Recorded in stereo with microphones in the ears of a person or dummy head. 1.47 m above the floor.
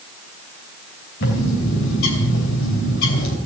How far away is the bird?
About 3 m.